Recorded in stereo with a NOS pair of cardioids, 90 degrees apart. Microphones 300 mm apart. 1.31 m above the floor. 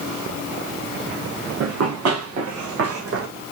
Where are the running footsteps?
65° right, 4.5 m; by 3.3 s 50° right, 3.5 m.